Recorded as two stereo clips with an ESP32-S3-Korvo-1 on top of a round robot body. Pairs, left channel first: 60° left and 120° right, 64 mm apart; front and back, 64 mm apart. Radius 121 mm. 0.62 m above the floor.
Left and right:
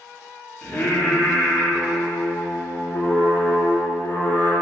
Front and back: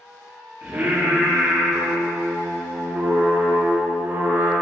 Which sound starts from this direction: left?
Singing, at 0.6 s.